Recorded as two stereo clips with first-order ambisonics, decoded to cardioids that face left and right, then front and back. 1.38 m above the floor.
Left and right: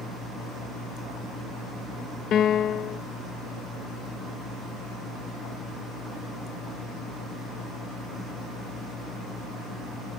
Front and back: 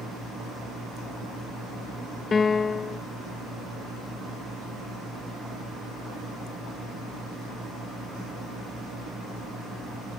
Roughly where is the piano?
Ahead left.